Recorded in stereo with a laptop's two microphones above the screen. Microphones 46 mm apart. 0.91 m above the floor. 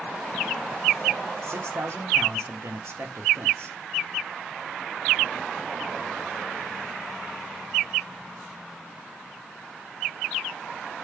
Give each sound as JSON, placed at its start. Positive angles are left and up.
{"t": 1.4, "sound": "a man speaking", "side_deg": -70, "distance_m": 1.0}